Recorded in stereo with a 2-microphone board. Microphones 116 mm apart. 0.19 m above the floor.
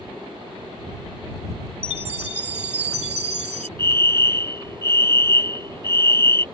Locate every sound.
1.8 s a chime: 65° right (ahead or behind)
3.8 s a fire alarm: 25° left (ahead or behind)